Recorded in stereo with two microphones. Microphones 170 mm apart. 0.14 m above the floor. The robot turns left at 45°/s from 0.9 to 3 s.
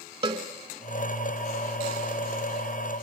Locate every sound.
0.2 s a cowbell: 30° right (ahead or behind), 0.6 m